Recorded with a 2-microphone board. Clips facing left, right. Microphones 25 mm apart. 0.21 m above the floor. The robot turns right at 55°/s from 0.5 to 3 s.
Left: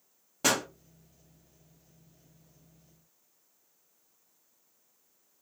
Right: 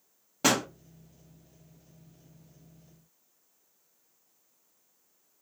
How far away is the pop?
About 0.9 m.